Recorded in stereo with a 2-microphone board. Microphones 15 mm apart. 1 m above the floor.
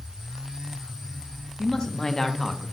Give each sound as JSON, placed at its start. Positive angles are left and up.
{"t": 1.6, "sound": "a man speaking", "side_deg": 50, "distance_m": 1.1}